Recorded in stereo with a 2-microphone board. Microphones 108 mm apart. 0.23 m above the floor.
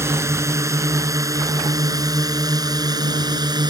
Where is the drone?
25° right (ahead or behind); by 3.7 s 40° right (ahead or behind).